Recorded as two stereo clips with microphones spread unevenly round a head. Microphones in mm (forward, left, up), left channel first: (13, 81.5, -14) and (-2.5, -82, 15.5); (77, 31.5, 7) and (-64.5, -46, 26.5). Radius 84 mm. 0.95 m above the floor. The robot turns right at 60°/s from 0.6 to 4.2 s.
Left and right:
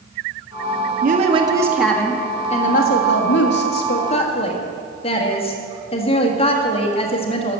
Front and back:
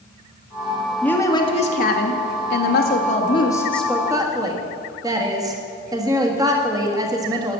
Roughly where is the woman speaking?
Ahead right.